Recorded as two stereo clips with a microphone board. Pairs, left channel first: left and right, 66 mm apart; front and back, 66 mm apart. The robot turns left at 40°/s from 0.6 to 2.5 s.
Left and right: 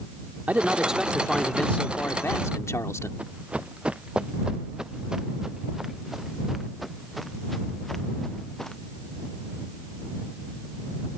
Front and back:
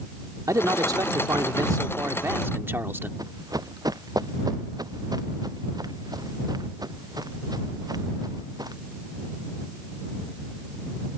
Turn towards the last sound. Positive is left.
turn(degrees=175)